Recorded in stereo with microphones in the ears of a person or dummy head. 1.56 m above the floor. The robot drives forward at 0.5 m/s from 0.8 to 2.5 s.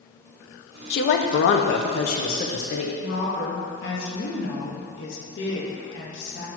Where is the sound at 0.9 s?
60° left (ahead or behind), 0.7 m; by 2.9 s 45° left (ahead or behind), 0.8 m.